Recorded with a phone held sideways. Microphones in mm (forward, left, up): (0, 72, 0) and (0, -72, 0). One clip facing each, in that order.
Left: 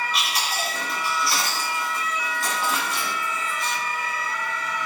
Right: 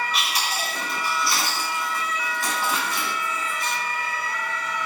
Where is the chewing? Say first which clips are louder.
Even; centre (ahead or behind), 2.0 m.